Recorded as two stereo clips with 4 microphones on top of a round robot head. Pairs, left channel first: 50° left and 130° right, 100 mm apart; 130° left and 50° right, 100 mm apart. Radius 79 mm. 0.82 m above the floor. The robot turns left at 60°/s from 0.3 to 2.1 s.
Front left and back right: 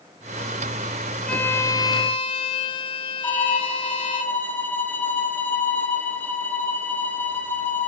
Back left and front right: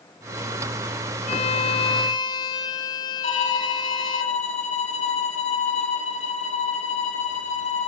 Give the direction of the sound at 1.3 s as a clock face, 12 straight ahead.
8 o'clock.